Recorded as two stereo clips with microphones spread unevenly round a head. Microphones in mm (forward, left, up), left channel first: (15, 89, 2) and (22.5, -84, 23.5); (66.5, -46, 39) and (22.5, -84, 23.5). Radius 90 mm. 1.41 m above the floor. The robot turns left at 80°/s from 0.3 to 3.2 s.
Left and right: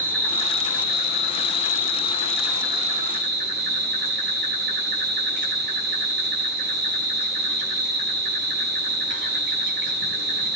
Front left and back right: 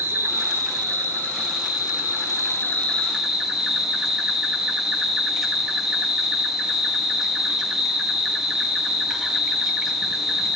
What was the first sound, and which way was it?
An insect, 170° left.